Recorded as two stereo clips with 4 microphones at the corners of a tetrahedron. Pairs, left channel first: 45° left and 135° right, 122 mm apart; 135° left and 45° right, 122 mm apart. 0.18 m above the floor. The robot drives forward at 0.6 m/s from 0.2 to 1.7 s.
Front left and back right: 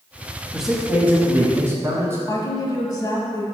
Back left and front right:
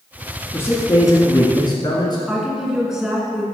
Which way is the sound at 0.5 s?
140° left.